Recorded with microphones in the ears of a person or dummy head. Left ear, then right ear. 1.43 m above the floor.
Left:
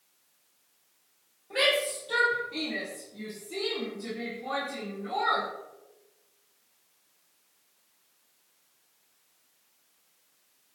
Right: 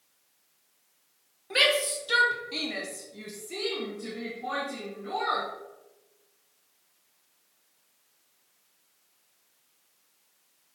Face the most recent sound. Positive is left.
turn(degrees=-20)  # may be behind; listen again after turning